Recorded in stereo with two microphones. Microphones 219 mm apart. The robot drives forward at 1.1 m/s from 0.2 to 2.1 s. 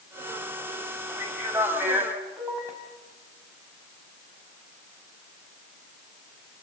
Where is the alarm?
I don't hear an alarm.